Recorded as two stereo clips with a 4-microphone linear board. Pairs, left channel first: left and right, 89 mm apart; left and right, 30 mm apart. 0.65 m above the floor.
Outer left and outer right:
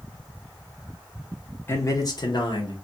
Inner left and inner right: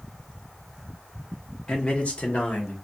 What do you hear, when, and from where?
1.7 s a man speaking: 25° left (ahead or behind), 0.7 m; by 2.7 s 60° left (ahead or behind), 1.4 m